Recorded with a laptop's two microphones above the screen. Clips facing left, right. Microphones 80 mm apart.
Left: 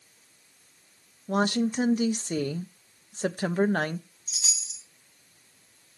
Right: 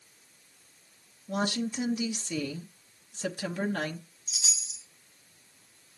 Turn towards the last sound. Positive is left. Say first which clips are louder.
# right 2 dB
turn(degrees=45)  # may be behind; listen again after turning